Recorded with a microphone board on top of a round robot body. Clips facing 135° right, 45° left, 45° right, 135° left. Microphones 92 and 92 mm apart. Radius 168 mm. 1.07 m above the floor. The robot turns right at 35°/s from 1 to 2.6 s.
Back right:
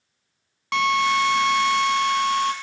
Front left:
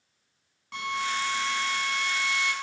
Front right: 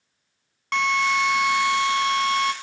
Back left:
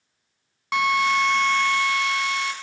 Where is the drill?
145° right, 0.9 m; by 2.5 s 90° right, 0.9 m.